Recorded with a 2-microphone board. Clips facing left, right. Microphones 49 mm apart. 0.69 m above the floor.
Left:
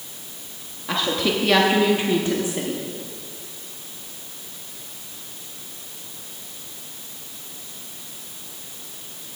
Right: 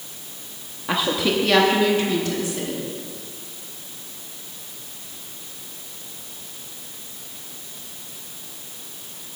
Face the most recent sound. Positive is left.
turn(degrees=35)  # may be behind; listen again after turning